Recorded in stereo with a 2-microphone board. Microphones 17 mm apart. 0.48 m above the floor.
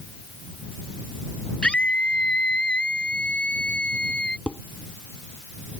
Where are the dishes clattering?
60° left (ahead or behind).